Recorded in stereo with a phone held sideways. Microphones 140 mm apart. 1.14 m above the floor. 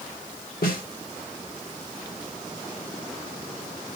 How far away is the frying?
I don't hear frying.